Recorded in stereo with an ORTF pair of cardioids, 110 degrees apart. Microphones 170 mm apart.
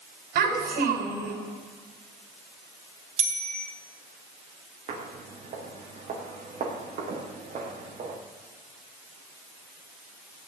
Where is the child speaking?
65° right, 6.5 m.